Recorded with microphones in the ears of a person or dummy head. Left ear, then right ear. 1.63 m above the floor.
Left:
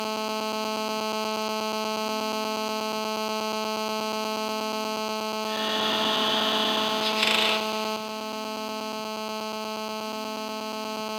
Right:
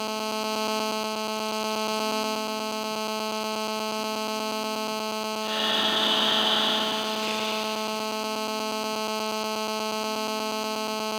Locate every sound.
5.4 s breathing: 25° right (ahead or behind), 10 m
7.0 s a squeak: 50° left (ahead or behind), 0.7 m